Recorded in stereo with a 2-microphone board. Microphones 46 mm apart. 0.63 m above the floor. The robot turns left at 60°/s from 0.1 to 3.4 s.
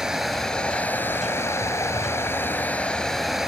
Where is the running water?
175° right, 3.5 m; by 3.5 s 15° right, 3.5 m.